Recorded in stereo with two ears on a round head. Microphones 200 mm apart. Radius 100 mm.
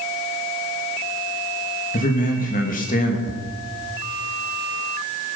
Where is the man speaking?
40° left (ahead or behind), 2.5 m.